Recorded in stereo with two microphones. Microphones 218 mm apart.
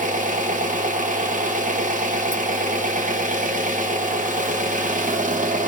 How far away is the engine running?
About 0.8 m.